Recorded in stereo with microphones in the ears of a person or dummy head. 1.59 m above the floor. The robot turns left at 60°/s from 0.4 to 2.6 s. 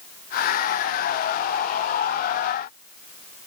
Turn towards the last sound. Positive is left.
No sound to turn to.